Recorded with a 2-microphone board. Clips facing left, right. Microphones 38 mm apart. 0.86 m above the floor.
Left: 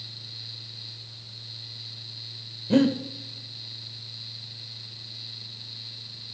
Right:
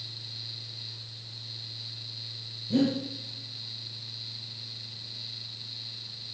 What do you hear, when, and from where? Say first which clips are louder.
2.7 s breathing: left 5 dB; 75° left (ahead or behind), 1.5 m